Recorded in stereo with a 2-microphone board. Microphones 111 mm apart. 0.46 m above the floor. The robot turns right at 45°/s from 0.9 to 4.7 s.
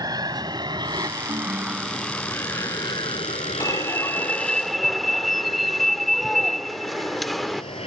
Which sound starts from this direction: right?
An aircraft, at 0.0 s.